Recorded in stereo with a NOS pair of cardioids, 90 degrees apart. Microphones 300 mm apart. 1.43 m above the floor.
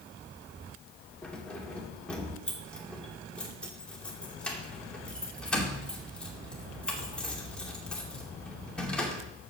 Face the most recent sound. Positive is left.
turn(degrees=5)